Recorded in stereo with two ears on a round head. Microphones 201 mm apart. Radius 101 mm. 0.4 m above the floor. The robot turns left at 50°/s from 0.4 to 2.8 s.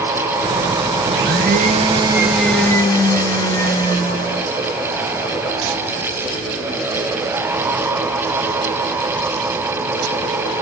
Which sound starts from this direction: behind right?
A blender, at 1.1 s.